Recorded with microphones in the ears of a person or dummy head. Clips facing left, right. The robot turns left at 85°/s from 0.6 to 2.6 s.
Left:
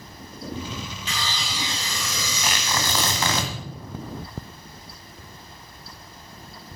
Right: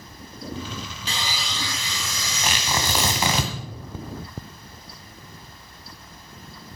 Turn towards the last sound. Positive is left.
turn(degrees=-15)  # may be behind; listen again after turning